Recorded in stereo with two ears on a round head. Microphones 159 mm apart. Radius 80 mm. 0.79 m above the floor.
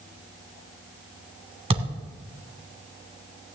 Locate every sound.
1.7 s a thud: 35° right (ahead or behind), 1.9 m